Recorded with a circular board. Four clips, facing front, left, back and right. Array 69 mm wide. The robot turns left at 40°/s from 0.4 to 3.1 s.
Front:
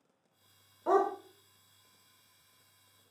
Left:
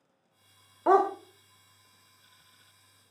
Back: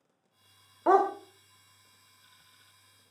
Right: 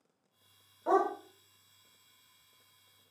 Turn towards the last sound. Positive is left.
turn(degrees=45)